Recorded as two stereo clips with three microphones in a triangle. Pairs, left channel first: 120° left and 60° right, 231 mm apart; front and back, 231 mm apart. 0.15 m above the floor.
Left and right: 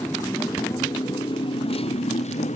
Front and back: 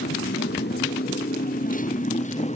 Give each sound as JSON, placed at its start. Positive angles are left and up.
{"t": 0.0, "sound": "a motorcycle", "azimuth_deg": 40}